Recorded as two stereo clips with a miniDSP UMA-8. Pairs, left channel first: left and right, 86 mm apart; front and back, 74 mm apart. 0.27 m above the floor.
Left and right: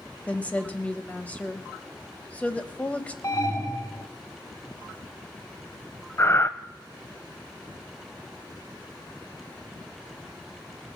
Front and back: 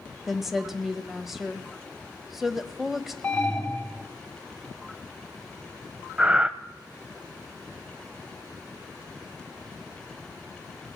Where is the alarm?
65° left, 2.5 m.